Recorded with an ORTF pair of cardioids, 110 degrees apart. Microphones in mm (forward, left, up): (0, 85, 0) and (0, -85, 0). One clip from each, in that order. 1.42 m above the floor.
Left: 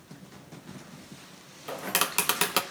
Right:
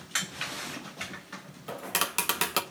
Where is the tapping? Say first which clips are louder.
Left 2 dB; 10° left, 1.5 m.